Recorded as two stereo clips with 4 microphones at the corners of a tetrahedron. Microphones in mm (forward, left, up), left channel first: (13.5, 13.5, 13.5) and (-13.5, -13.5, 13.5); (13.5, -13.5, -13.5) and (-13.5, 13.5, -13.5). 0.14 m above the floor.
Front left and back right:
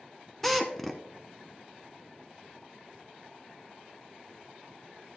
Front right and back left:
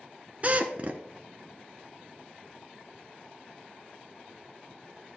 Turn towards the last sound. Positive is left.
turn(degrees=125)